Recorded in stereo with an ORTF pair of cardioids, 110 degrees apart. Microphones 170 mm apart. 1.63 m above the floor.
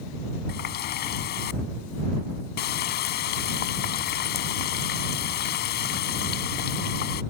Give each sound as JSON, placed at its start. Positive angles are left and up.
{"t": 0.5, "sound": "a running tap", "azimuth_deg": 70}